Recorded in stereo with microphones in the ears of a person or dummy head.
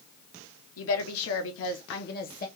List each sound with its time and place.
0.8 s a woman speaking: 75° left (ahead or behind), 1.2 m; by 2.5 s 35° left (ahead or behind), 1.0 m